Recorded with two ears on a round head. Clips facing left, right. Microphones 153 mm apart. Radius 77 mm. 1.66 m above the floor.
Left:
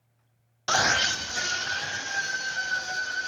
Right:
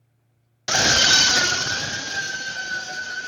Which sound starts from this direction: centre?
A scream, at 0.7 s.